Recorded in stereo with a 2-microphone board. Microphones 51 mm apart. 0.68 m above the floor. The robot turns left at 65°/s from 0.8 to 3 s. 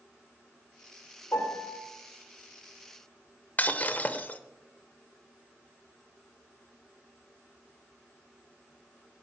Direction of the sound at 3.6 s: 30° left (ahead or behind).